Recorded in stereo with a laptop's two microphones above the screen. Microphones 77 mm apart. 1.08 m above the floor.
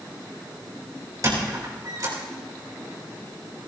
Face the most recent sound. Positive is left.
turn(degrees=-50)  # may be behind; listen again after turning